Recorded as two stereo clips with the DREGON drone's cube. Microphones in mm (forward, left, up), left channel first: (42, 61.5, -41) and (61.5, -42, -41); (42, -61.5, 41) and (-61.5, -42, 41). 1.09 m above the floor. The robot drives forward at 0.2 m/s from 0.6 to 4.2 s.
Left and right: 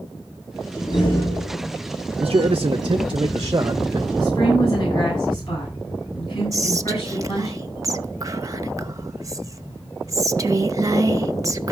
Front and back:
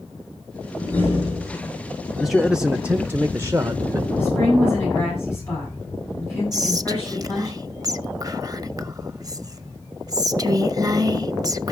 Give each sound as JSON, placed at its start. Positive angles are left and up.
{"t": 0.8, "sound": "a door slam", "azimuth_deg": 60, "distance_m": 10.0}
{"t": 2.2, "sound": "a man speaking", "azimuth_deg": -100, "distance_m": 0.5}
{"t": 4.2, "sound": "a woman speaking", "azimuth_deg": 60, "distance_m": 8.0}
{"t": 6.5, "sound": "whispering", "azimuth_deg": -135, "distance_m": 0.8}